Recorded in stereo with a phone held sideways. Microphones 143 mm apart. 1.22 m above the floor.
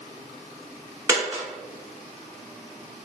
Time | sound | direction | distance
1.1 | a dropped coin | 15° right (ahead or behind) | 1.0 m